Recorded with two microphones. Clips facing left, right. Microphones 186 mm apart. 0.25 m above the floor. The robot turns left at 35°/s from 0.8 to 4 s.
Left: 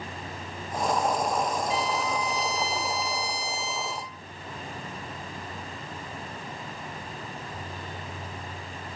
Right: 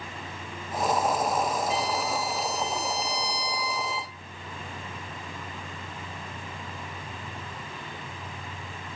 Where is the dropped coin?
No dropped coin in this recording.